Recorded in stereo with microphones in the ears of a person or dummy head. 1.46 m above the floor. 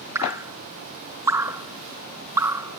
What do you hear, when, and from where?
0.1 s dripping: 15° right (ahead or behind)